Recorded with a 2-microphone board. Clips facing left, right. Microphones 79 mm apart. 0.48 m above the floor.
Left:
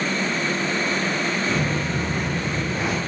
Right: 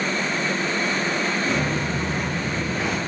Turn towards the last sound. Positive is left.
turn(degrees=25)  # may be behind; listen again after turning